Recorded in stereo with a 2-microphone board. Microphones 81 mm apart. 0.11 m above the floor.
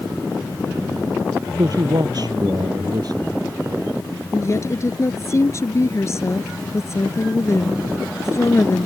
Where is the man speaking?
55° right (ahead or behind).